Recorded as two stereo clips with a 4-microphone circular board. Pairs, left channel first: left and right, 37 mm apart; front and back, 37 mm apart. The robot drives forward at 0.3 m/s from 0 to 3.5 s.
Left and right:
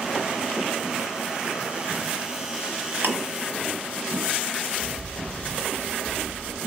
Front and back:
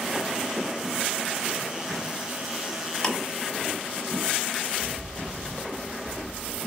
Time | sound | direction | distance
3.0 | ticking | 75° right | 1.5 m
4.7 | a bird | 165° right | 2.5 m